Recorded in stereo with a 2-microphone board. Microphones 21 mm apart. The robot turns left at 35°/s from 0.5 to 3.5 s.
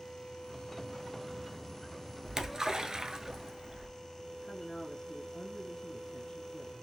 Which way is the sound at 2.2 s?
30° right.